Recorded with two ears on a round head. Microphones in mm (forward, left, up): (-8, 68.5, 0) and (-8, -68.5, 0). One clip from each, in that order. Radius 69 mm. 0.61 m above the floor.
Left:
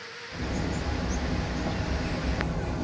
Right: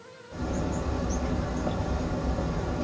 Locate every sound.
0.3 s a bird: centre (ahead or behind), 0.8 m